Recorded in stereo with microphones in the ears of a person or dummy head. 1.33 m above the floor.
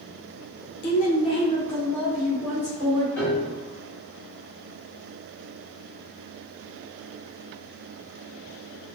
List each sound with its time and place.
0.8 s a woman speaking: 55° left (ahead or behind), 0.5 m; by 3.1 s 15° right (ahead or behind), 1.3 m
3.2 s a piano: 10° left (ahead or behind), 1.1 m